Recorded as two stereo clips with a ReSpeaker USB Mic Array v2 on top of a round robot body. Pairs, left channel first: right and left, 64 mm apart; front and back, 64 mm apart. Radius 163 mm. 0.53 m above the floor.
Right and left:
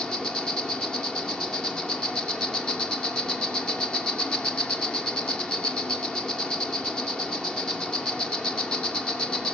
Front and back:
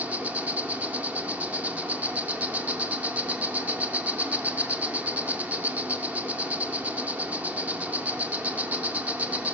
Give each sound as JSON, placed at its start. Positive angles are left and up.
{"t": 0.0, "sound": "an insect", "azimuth_deg": -150, "distance_m": 2.0}